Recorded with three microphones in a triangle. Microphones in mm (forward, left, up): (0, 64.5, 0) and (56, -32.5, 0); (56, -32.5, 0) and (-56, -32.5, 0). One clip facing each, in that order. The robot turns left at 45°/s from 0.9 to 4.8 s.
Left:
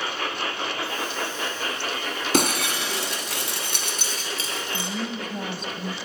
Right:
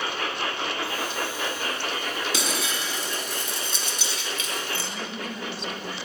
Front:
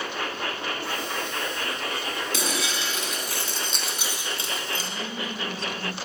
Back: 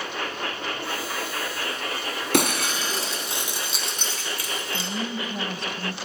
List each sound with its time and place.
2.3 s breaking glass: 155° left, 3.5 m; by 4.9 s 45° left, 3.5 m
4.7 s a woman speaking: 160° left, 2.5 m; by 5.9 s 155° left, 2.5 m